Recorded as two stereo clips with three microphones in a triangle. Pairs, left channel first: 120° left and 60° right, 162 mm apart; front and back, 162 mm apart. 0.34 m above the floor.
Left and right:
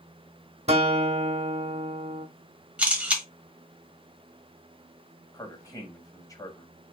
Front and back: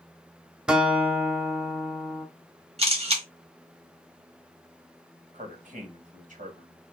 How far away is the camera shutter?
About 1.4 m.